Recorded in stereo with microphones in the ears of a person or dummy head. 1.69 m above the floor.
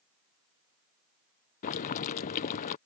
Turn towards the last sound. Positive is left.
turn(degrees=50)  # may be behind; listen again after turning